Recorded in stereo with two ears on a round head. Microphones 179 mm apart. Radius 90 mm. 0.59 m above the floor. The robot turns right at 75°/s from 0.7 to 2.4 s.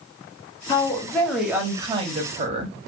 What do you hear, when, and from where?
0.7 s a woman speaking: 135° left, 1.0 m; by 2.8 s 95° right, 1.0 m